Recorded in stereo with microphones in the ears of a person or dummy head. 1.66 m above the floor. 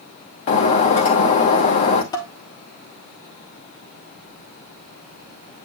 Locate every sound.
0.5 s breaking glass: 45° left (ahead or behind), 1.4 m
2.1 s dishes clattering: 25° left (ahead or behind), 1.0 m